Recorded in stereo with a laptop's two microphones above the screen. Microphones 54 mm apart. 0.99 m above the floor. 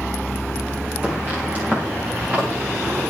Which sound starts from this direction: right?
Footsteps, at 1.0 s.